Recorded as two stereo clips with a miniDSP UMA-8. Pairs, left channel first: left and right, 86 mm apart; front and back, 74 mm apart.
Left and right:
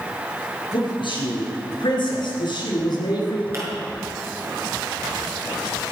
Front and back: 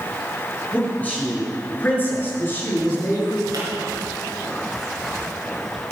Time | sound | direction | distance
0.7 | a man speaking | 70° left | 6.5 m
3.5 | a pop | 145° right | 6 m